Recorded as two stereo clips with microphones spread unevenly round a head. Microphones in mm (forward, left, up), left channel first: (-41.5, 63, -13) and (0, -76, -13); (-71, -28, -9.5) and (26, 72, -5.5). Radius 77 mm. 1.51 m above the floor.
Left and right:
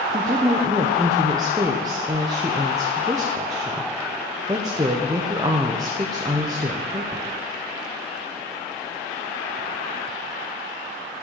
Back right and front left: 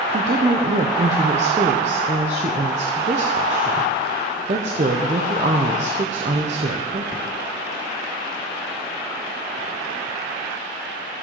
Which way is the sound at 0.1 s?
5° right.